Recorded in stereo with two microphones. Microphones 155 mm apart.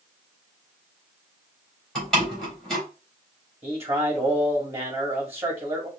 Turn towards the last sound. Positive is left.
turn(degrees=-15)  # may be behind; listen again after turning